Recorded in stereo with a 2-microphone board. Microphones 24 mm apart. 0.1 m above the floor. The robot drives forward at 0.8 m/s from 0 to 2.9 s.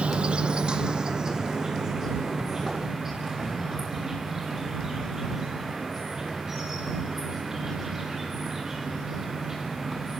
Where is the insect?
50° right (ahead or behind), 1.0 m; by 10.2 s 15° right (ahead or behind), 3 m.